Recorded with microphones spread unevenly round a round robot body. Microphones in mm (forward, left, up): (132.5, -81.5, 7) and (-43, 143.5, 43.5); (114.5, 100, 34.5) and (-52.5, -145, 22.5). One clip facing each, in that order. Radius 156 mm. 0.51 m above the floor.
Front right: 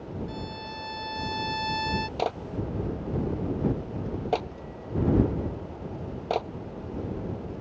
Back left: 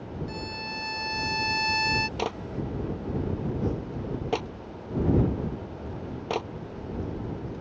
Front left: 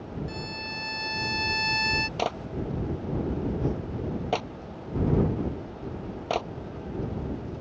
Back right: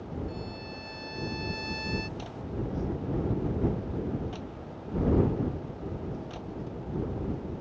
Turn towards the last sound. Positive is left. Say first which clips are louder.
# front right 1 dB, front left 4 dB
turn(degrees=60)